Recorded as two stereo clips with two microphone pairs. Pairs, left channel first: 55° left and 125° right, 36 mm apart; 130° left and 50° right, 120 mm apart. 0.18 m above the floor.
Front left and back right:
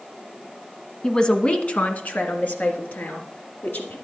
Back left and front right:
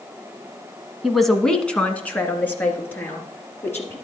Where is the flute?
I don't hear a flute.